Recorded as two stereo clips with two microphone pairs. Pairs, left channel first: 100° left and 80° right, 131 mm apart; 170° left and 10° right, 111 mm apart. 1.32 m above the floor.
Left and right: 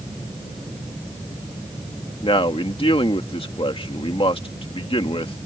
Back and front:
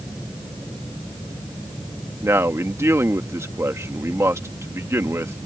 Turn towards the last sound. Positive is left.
turn(degrees=55)